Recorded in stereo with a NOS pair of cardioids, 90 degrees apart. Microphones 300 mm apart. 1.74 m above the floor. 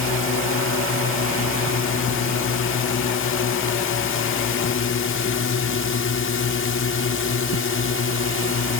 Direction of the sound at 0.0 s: 45° left.